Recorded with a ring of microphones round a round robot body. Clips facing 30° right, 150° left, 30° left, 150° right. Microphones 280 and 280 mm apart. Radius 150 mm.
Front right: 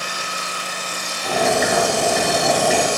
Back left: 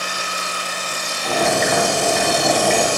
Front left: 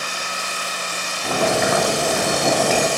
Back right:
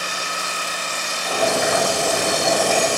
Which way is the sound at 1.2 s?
55° left.